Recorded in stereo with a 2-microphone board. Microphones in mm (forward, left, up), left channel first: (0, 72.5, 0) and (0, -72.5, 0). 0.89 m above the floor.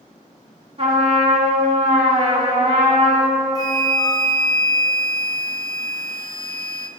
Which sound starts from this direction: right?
A trumpet, at 0.8 s.